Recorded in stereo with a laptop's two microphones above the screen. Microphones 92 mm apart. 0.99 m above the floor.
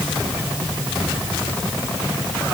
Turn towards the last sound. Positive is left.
No sound to turn to.